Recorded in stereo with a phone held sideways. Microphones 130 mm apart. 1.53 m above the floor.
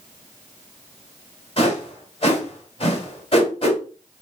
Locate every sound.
1.6 s a whoosh: 40° left (ahead or behind), 1.7 m